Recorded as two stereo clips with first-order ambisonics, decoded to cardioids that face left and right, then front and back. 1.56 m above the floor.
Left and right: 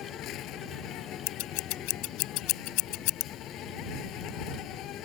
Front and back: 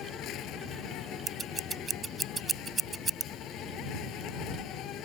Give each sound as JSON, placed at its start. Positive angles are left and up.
{"t": 0.0, "sound": "an insect", "azimuth_deg": 45}
{"t": 1.3, "sound": "scissors", "azimuth_deg": 105}